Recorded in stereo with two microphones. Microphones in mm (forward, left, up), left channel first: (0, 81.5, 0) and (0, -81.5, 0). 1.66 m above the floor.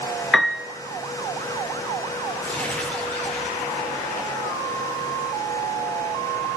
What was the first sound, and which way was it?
A piano, centre (ahead or behind).